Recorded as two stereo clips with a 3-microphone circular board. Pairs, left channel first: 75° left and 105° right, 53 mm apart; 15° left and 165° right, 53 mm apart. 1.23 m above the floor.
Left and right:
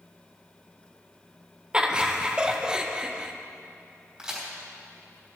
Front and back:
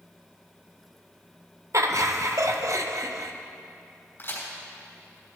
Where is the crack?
30° right, 4 m.